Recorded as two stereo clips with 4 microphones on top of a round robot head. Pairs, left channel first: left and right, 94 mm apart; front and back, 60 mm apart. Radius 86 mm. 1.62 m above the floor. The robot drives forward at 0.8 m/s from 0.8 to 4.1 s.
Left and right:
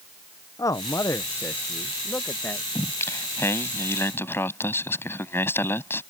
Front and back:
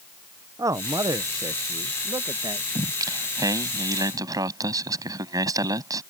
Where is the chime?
No chime in this recording.